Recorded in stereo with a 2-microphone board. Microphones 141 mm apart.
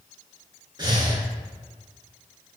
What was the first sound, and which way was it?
Breathing, 30° right (ahead or behind).